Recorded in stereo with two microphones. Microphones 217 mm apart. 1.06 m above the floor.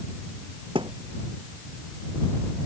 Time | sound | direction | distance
0.8 | a thud | 20° right (ahead or behind) | ?